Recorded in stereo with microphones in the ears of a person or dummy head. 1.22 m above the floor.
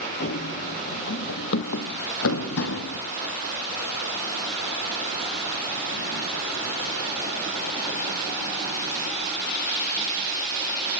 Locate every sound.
0.2 s running footsteps: 45° left (ahead or behind), 1.7 m; by 3.0 s 70° left (ahead or behind), 3 m